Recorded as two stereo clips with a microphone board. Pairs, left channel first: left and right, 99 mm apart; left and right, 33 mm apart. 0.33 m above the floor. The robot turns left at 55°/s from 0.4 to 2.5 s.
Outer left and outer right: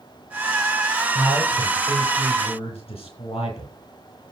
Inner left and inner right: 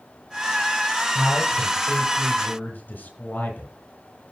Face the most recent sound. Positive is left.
turn(degrees=105)